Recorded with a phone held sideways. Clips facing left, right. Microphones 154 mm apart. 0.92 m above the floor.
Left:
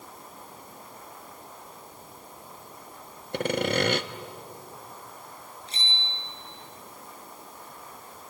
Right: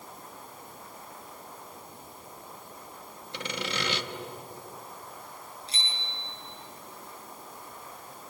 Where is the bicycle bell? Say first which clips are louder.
Left 3 dB; 35° right (ahead or behind), 9 m.